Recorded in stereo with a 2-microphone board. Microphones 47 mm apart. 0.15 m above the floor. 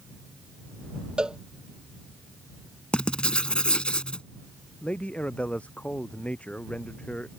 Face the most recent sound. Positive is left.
turn(degrees=30)  # may be behind; listen again after turning